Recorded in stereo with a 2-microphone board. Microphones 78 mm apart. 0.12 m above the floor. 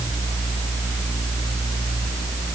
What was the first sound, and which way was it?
Only background noise.